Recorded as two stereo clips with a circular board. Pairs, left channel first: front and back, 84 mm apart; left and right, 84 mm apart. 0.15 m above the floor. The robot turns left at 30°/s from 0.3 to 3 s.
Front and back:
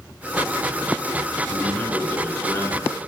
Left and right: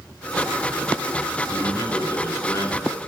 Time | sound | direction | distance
1.5 | a man speaking | 75° left | 2.5 m